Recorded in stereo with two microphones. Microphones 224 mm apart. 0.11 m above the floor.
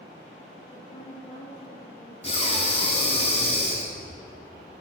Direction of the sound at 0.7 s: 25° left (ahead or behind).